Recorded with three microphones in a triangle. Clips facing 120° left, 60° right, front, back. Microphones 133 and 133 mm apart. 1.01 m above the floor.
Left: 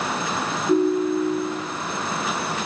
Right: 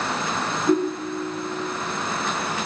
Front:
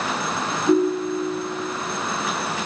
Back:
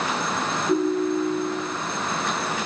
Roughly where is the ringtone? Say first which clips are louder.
Left 4 dB, front 3 dB; ahead right.